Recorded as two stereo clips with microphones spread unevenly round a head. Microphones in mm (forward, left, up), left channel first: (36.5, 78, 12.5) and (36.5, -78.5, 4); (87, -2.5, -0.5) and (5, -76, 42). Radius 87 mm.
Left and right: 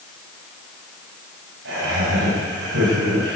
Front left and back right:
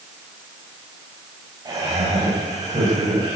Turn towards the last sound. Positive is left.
turn(degrees=-90)